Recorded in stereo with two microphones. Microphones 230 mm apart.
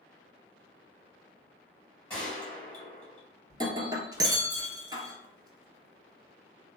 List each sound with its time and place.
2.1 s a gunshot: 5° left (ahead or behind), 1.6 m
3.5 s breaking glass: 20° right (ahead or behind), 0.6 m